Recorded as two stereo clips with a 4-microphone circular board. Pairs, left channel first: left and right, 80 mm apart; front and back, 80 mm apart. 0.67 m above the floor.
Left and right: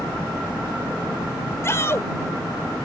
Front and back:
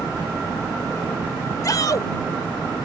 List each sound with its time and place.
1.6 s a shout: 35° left